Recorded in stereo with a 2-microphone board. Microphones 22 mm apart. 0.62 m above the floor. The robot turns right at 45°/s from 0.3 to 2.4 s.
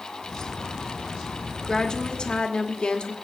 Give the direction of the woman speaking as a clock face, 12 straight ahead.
11 o'clock.